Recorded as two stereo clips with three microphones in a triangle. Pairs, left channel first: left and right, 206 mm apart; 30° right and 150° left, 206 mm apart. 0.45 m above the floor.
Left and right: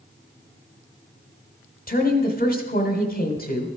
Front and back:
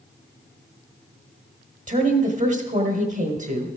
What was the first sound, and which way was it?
A woman speaking, 115° left.